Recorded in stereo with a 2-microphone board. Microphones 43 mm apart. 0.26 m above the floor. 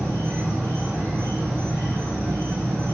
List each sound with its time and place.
0.0 s an insect: 75° right (ahead or behind), 1.5 m